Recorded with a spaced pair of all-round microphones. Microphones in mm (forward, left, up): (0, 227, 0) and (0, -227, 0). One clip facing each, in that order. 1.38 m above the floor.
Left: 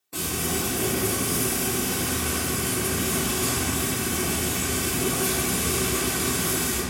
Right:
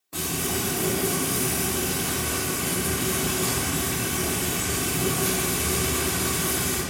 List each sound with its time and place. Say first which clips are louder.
0.1 s frying: even; centre (ahead or behind), 1.3 m